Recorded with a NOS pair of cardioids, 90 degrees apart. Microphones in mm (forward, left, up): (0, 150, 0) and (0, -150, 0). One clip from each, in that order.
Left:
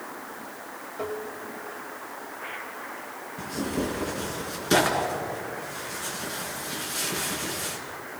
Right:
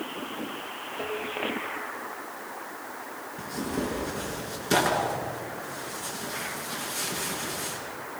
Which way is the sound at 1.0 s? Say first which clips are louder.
Left 1 dB; 15° left.